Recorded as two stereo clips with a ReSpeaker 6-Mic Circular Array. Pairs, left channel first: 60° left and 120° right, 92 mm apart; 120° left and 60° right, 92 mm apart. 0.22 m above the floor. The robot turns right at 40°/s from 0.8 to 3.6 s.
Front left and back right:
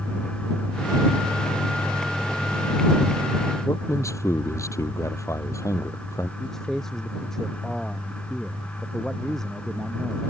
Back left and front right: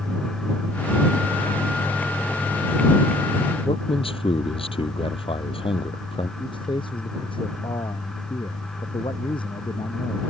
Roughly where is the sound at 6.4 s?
Behind left.